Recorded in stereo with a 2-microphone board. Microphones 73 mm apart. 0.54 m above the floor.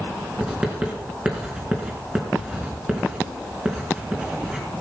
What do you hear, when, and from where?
0.4 s writing: 15° right (ahead or behind), 4 m